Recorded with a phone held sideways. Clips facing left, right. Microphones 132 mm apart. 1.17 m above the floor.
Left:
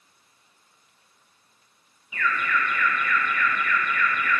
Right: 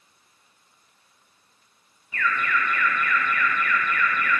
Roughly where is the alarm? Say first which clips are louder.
Even; centre.